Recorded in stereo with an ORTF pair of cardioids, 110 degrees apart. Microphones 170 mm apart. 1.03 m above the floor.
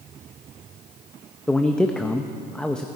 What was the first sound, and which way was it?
A man speaking, 5° left.